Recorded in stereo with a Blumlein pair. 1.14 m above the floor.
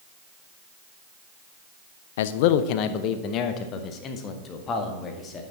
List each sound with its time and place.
2.2 s a man speaking: 55° left, 0.6 m; by 5.4 s 25° left, 2 m